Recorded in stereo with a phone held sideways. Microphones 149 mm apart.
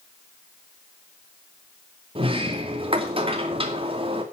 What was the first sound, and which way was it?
A sliding door, 35° right (ahead or behind).